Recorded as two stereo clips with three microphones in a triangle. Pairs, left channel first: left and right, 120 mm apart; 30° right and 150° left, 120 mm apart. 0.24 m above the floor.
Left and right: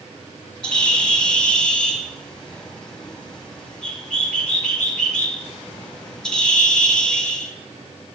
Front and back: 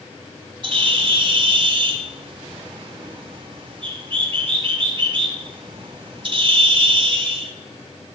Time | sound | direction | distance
0.6 | a bird | 170° left | 1.6 m